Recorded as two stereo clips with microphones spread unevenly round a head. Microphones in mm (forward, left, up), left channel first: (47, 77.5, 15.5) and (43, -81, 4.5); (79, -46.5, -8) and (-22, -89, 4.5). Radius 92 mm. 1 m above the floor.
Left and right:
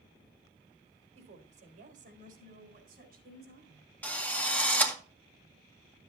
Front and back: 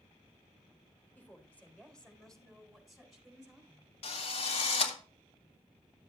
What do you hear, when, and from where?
1.1 s a woman speaking: 50° right, 4 m; by 3.9 s 80° right, 5.5 m
4.0 s a drill: 5° left, 2.0 m